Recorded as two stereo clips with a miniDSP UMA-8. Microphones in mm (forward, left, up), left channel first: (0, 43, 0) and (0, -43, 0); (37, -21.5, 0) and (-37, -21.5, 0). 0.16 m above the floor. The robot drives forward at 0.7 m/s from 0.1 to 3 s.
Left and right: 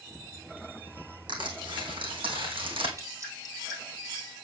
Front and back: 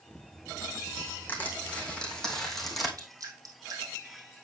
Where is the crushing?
70° right, 3 m; by 2.9 s 90° right, 2.5 m.